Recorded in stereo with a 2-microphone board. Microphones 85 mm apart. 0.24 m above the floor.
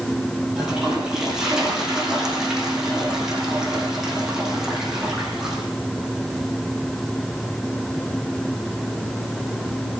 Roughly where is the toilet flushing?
Centre.